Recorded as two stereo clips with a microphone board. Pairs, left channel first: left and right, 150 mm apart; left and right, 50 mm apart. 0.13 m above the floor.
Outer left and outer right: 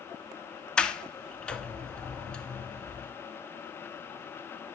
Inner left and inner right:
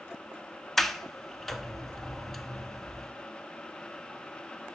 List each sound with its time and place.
0.8 s a sliding door: 5° left (ahead or behind), 0.7 m